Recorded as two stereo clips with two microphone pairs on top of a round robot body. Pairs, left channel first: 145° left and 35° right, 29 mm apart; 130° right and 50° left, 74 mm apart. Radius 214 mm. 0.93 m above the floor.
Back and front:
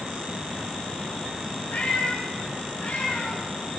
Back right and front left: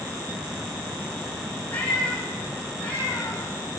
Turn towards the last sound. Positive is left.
turn(degrees=160)